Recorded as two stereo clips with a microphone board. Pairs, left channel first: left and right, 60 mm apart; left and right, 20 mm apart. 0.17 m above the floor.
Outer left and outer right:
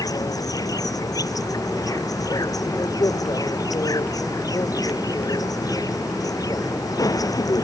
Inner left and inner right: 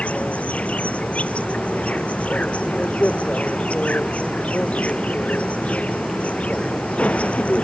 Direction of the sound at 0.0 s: 85° left.